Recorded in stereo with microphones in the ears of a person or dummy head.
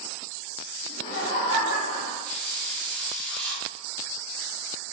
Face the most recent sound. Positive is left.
turn(degrees=5)  # may be behind; listen again after turning